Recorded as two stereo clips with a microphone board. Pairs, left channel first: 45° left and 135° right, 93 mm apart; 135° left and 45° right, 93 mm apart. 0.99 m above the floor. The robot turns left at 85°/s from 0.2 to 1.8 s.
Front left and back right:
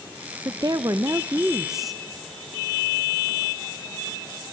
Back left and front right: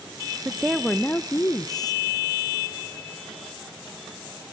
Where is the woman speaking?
110° right, 0.6 m; by 2.0 s 135° left, 0.6 m.